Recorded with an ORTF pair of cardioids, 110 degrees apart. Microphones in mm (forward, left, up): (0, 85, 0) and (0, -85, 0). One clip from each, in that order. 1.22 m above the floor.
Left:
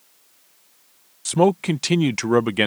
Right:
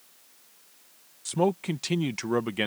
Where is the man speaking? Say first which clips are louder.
Left 8 dB; 35° left.